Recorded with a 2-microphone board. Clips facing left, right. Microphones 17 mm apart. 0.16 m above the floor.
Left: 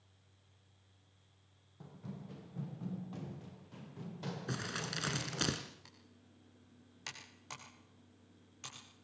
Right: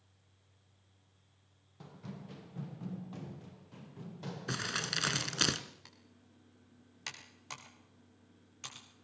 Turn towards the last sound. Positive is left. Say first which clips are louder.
# right 1 dB
turn(degrees=-10)  # may be behind; listen again after turning